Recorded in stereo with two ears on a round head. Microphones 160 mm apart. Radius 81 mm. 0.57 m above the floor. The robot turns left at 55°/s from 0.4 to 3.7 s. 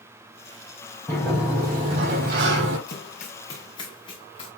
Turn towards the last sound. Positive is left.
turn(degrees=30)  # may be behind; listen again after turning